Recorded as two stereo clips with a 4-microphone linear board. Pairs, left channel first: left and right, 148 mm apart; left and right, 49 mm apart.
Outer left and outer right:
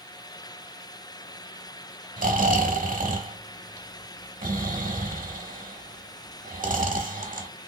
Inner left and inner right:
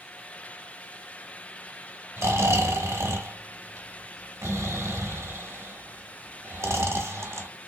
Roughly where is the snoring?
Right.